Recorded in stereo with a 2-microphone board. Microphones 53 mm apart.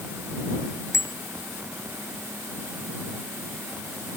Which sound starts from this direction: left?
A bicycle bell, at 0.9 s.